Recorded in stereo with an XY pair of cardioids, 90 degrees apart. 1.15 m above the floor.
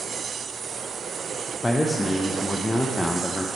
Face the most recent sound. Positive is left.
turn(degrees=15)